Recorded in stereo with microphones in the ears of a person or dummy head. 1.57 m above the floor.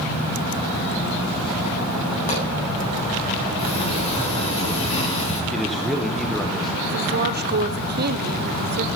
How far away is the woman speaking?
About 0.9 m.